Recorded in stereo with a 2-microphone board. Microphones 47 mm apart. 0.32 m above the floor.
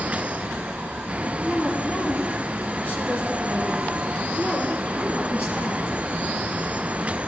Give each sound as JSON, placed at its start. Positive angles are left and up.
{"t": 1.4, "sound": "a woman speaking", "side_deg": 20, "distance_m": 2.5}